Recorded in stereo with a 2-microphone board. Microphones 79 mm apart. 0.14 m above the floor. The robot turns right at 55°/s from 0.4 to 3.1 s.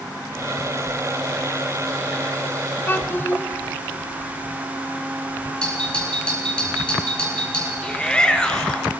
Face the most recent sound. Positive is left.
turn(degrees=10)  # may be behind; listen again after turning